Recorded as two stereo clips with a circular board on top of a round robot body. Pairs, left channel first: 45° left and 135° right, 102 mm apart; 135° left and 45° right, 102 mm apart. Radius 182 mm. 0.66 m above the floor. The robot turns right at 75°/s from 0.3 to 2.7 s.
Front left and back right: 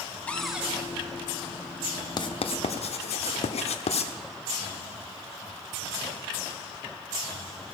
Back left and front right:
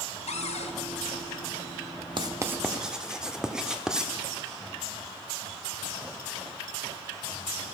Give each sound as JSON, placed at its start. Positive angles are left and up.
{"t": 0.3, "sound": "a cupboard door", "azimuth_deg": 125, "distance_m": 1.4}
{"t": 2.2, "sound": "writing", "azimuth_deg": 0, "distance_m": 1.3}